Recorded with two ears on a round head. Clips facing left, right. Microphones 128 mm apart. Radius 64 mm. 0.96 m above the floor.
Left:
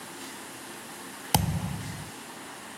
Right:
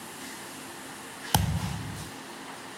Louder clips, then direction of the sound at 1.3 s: Left 1 dB; 10° left (ahead or behind).